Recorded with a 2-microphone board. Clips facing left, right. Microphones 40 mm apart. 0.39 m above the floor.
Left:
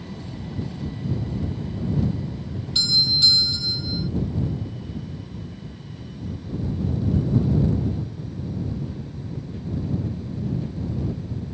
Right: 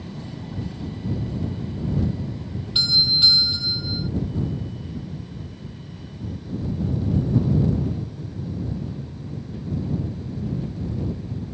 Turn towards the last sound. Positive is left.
turn(degrees=-20)  # may be behind; listen again after turning